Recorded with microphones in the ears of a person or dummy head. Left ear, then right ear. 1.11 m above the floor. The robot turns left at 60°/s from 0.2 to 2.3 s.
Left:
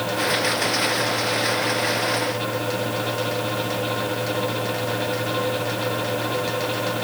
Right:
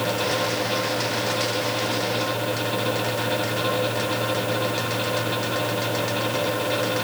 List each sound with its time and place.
Only background noise.